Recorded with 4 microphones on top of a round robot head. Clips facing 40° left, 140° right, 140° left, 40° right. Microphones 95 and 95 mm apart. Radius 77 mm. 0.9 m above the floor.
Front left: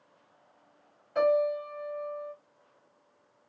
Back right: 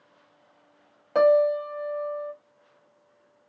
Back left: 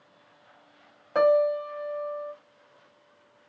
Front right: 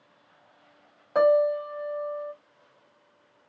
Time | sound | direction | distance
1.1 | a piano | 120° right | 0.5 m